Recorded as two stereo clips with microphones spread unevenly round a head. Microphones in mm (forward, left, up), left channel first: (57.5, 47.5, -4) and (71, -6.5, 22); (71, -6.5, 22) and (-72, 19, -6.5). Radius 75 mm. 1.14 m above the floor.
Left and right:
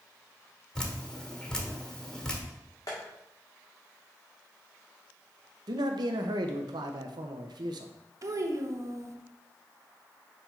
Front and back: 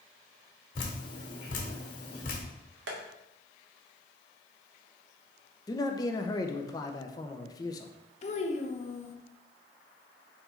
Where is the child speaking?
55° right, 0.9 m.